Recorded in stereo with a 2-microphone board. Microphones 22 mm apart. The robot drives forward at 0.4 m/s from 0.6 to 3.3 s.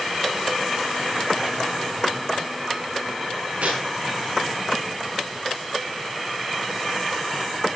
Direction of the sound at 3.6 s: 75° right (ahead or behind).